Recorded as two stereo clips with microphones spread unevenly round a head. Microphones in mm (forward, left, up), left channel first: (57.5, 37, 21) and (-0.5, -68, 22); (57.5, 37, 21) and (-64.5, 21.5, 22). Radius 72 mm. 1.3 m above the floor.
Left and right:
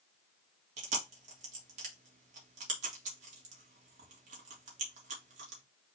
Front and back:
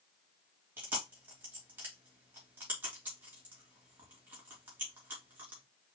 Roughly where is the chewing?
Right.